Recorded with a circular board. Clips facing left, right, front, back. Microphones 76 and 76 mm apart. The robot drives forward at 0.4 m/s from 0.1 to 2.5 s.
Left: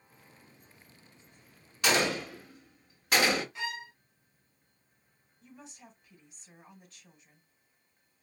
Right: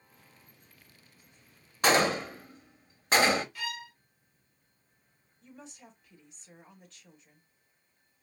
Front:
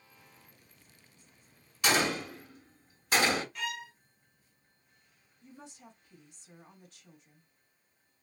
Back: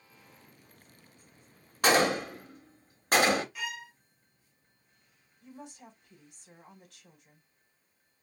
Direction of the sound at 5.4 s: 175° left.